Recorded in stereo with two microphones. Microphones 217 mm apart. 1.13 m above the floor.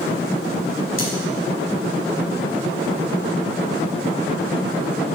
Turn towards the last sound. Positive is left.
turn(degrees=80)